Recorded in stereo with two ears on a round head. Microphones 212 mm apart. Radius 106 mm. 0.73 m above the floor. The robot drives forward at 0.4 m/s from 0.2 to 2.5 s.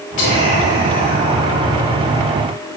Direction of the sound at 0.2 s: 50° left (ahead or behind).